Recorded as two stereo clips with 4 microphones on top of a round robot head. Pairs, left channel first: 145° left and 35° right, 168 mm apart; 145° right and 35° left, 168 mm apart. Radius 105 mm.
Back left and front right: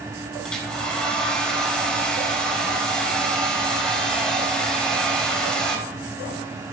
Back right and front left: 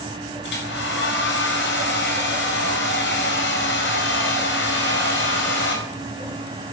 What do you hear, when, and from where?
0.4 s a hair dryer: 130° right, 4.5 m